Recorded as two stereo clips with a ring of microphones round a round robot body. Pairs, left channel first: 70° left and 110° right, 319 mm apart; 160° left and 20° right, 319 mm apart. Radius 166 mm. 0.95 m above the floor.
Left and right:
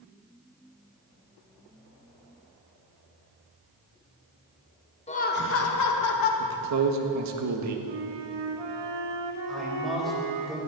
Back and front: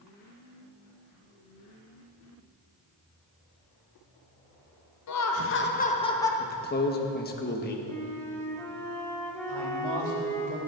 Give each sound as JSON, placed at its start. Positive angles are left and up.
{"t": 5.1, "sound": "laughter", "azimuth_deg": 135, "distance_m": 1.5}
{"t": 6.4, "sound": "a man speaking", "azimuth_deg": -145, "distance_m": 1.6}
{"t": 7.9, "sound": "a flute", "azimuth_deg": -120, "distance_m": 2.0}
{"t": 9.5, "sound": "a man speaking", "azimuth_deg": -20, "distance_m": 4.0}